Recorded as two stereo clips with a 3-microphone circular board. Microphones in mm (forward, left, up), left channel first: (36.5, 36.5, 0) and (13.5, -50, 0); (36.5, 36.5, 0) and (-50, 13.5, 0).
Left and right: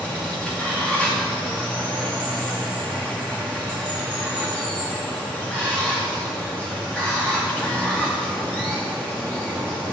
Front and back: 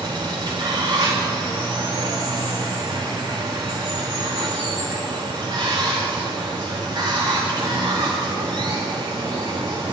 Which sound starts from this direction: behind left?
Running water, at 0.0 s.